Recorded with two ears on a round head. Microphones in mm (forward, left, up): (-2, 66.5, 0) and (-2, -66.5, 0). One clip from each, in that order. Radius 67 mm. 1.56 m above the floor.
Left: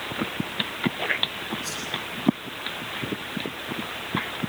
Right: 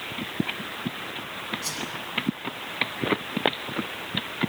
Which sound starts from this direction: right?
A whoosh, at 1.6 s.